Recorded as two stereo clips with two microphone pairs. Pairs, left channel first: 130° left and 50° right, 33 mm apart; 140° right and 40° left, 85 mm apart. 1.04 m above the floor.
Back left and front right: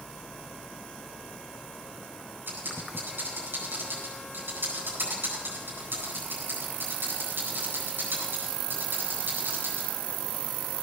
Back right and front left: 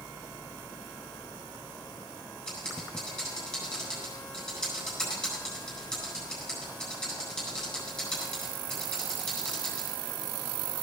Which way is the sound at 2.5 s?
55° right.